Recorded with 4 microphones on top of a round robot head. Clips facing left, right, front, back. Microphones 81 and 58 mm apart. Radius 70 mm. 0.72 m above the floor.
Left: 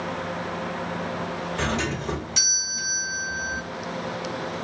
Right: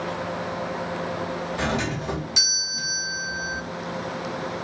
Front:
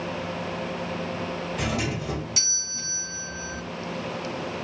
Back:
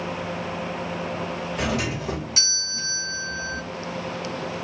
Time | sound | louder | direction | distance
1.6 | a doorbell | even, back 3 dB | 165° right | 1.2 m